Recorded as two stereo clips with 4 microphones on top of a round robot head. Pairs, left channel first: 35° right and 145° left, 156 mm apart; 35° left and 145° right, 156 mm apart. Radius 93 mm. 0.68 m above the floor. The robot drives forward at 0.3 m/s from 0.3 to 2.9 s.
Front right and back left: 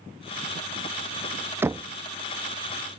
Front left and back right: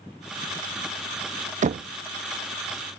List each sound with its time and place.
1.6 s knocking: 145° right; by 1.9 s 150° right